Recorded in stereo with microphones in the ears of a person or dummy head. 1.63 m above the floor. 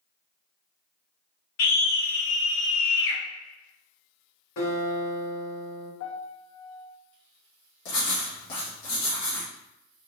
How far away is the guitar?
About 1.6 m.